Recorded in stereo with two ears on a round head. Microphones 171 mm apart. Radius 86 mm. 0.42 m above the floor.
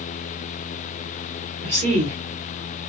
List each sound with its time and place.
1.6 s a woman speaking: 40° right (ahead or behind), 1.8 m